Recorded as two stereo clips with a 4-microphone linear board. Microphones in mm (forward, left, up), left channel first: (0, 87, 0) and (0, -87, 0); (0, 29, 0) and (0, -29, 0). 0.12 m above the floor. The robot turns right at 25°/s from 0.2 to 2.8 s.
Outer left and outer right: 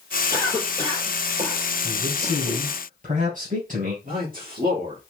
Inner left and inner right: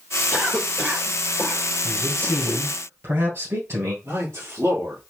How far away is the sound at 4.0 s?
About 3 m.